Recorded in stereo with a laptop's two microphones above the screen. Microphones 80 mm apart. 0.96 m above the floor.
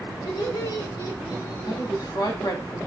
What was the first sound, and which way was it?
Laughter, 75° left (ahead or behind).